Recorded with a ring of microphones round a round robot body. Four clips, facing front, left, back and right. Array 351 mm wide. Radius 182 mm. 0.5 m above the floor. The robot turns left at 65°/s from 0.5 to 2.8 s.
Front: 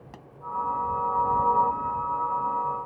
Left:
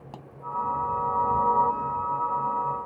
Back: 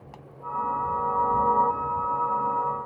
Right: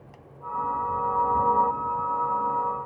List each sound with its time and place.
0.1 s a pop: 70° left